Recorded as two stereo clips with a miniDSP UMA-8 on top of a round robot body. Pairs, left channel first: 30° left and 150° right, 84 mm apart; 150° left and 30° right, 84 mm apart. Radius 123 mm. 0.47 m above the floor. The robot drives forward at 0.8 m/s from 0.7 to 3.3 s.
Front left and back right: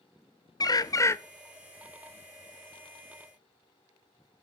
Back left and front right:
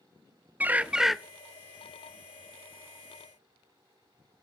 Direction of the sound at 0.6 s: 35° left.